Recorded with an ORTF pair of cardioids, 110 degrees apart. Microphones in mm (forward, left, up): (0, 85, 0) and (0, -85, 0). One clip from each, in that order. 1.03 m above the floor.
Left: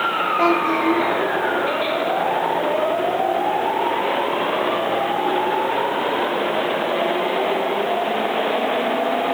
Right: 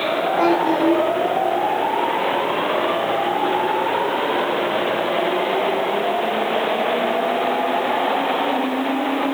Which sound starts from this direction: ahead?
A child speaking, at 0.4 s.